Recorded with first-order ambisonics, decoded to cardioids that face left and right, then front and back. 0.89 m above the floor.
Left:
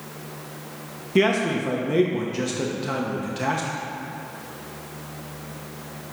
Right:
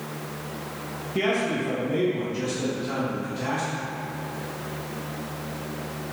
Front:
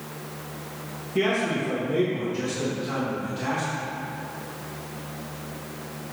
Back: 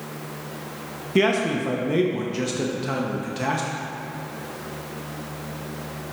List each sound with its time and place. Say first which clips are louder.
1.1 s a man speaking: left 4 dB, back 3 dB; 140° left, 0.9 m